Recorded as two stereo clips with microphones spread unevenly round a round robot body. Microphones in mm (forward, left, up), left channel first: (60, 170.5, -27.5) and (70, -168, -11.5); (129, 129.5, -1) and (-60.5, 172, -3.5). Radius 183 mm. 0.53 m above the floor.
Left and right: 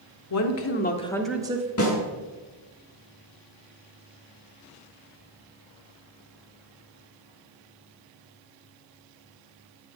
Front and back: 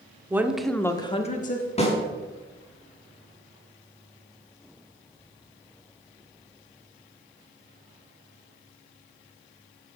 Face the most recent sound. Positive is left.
turn(degrees=45)